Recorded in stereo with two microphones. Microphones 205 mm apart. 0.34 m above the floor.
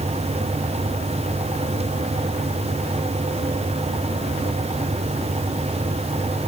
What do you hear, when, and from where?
Only background noise.